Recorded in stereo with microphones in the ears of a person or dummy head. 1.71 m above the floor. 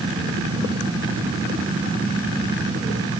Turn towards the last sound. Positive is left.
No sound to turn to.